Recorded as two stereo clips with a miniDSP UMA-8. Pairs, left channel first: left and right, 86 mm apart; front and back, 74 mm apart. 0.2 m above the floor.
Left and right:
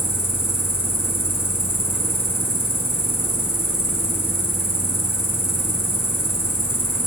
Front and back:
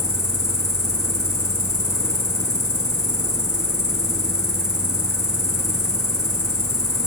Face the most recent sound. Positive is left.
turn(degrees=30)